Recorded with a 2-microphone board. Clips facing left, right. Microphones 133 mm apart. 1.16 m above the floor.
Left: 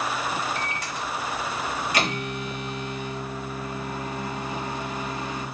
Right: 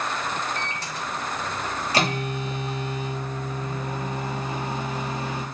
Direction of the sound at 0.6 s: 35° right (ahead or behind).